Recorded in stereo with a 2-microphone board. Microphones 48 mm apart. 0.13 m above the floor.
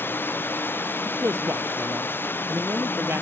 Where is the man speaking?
60° right (ahead or behind).